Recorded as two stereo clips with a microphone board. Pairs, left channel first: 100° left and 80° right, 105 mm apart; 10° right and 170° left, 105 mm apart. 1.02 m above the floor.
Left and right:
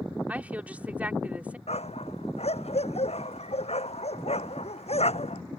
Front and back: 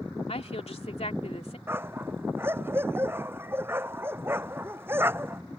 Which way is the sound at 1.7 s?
100° left.